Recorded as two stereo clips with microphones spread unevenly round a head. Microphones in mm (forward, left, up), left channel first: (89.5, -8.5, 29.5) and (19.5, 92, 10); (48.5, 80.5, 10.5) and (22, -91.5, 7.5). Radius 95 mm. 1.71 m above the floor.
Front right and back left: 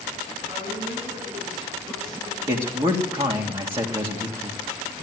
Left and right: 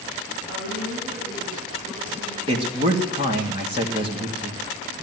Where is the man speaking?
165° right, 1.8 m.